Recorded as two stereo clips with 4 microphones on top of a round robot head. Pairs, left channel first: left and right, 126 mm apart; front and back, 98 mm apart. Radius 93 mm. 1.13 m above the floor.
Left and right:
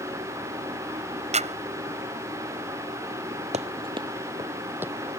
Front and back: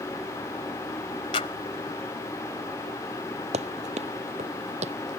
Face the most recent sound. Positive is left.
turn(degrees=-175)